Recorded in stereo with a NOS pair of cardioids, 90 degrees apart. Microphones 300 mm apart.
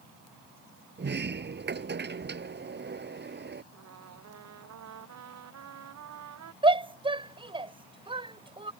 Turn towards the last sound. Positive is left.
turn(degrees=-15)